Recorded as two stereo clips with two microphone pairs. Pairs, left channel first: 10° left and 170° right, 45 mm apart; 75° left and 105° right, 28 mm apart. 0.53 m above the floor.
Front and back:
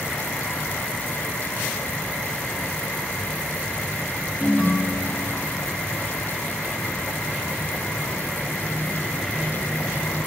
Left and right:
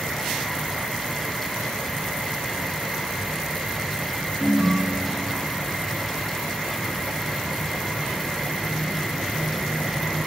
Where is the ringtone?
90° left, 0.5 m.